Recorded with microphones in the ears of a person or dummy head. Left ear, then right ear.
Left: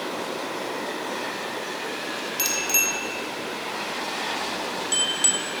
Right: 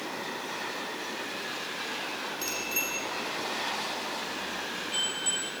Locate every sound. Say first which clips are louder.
2.4 s a bicycle bell: left 10 dB; 75° left (ahead or behind), 3.5 m; by 5.4 s 65° left (ahead or behind), 1.7 m